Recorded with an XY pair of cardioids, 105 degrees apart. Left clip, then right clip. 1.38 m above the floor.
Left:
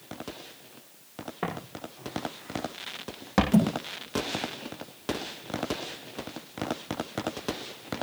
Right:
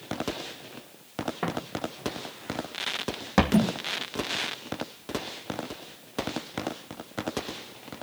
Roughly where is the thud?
Ahead.